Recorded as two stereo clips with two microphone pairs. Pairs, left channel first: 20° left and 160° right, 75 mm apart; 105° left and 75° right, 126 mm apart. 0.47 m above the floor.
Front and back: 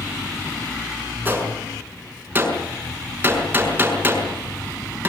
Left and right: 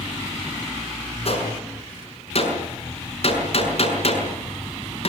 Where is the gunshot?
135° left, 6 m.